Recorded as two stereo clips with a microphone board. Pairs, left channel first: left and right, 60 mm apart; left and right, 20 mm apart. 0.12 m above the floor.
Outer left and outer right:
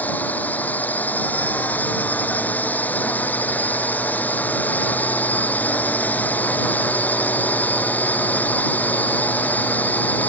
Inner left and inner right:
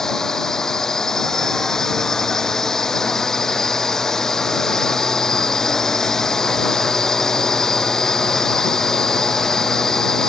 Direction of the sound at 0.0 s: 30° left (ahead or behind).